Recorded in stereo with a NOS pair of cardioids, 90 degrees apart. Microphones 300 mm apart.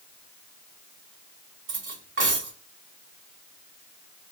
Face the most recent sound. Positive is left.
turn(degrees=-45)